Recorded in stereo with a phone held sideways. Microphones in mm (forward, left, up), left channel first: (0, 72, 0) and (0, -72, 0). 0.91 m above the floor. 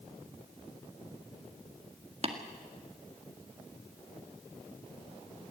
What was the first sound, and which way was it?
Tapping, 40° right (ahead or behind).